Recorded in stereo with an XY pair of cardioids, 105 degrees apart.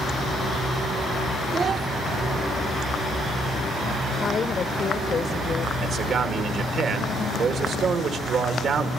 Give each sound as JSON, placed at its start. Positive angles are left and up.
{"t": 1.5, "sound": "a child speaking", "azimuth_deg": -45, "distance_m": 1.2}
{"t": 4.2, "sound": "a woman speaking", "azimuth_deg": 40, "distance_m": 0.9}
{"t": 5.8, "sound": "a man speaking", "azimuth_deg": -60, "distance_m": 2.5}